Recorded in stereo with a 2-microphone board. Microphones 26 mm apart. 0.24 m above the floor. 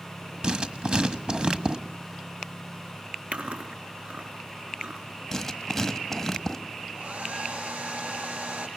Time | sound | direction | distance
0.4 | writing | 40° right (ahead or behind) | 1.5 m
3.3 | chewing | 60° right (ahead or behind) | 2.5 m
5.3 | writing | 10° left (ahead or behind) | 1.4 m
6.9 | a hair dryer | 80° right | 4.5 m